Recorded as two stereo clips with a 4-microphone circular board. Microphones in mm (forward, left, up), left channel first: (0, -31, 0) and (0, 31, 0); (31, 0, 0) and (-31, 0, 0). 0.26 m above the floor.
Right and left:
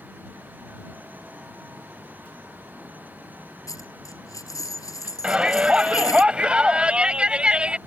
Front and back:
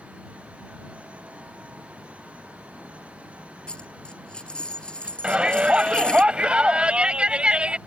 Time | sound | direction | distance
3.7 | a dropped coin | 75° right | ?
5.2 | a shout | 135° left | ?